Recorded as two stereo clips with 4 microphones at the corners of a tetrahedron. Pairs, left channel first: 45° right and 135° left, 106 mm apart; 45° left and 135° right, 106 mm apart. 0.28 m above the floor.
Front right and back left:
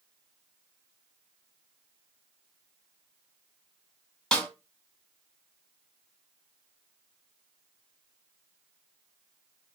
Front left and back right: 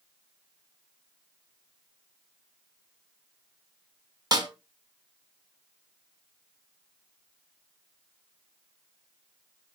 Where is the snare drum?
120° right, 1.7 m.